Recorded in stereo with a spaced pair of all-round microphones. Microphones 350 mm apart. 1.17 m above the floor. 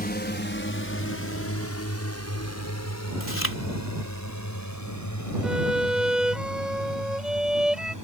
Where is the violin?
Centre (ahead or behind).